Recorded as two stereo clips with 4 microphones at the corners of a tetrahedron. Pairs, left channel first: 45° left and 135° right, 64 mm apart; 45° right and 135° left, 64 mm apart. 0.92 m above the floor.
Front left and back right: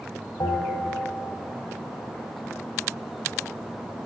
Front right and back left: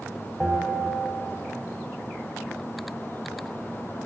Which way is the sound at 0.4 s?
45° left.